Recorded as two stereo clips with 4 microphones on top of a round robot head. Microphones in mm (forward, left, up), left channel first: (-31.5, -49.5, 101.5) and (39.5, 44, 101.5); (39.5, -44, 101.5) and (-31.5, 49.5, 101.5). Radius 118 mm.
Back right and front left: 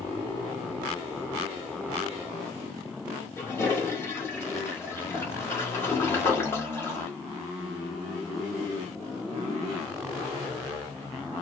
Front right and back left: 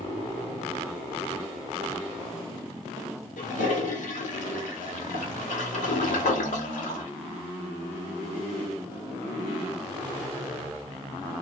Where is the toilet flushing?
55° right, 1.2 m.